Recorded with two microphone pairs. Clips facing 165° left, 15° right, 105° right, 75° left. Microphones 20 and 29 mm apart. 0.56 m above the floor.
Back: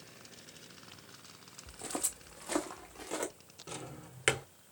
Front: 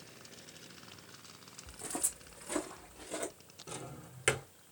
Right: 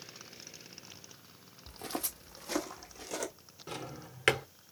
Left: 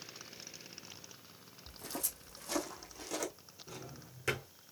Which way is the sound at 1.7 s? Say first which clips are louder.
Back 1 dB, right 4 dB; 130° right.